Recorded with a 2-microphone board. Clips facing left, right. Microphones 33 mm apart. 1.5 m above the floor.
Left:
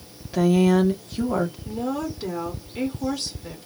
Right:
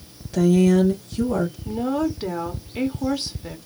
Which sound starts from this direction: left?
A woman speaking, at 0.3 s.